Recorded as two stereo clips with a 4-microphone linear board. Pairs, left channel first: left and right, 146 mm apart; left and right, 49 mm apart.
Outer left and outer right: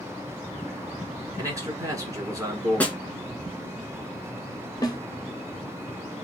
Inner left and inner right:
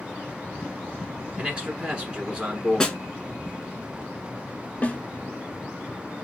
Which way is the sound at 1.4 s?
25° right (ahead or behind).